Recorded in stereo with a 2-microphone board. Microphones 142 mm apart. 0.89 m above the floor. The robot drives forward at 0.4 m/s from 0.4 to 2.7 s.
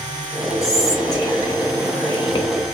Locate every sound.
0.6 s whispering: 20° left (ahead or behind), 1.5 m; by 2.5 s 40° left (ahead or behind), 0.9 m